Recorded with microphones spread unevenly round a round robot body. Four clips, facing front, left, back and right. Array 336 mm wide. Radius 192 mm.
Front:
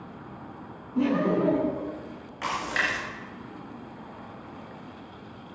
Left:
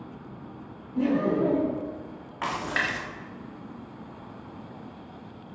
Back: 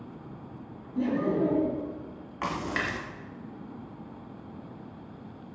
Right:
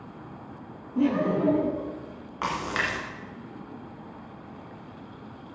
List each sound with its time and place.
0.9 s laughter: 25° right, 4 m
2.4 s a splash: 160° right, 1.4 m